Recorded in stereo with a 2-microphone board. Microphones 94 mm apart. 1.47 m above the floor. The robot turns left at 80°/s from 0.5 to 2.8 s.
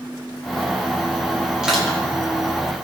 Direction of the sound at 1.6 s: 10° right (ahead or behind).